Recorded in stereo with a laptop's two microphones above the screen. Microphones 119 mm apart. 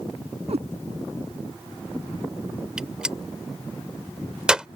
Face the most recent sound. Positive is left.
turn(degrees=-10)  # may be behind; listen again after turning